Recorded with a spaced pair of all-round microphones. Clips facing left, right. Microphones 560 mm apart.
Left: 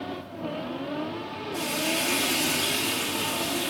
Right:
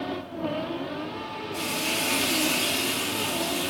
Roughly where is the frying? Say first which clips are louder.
Left 2 dB; right.